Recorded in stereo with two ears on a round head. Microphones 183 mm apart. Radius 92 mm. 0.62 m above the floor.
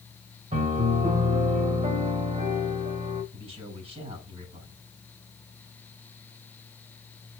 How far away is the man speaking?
About 6.5 m.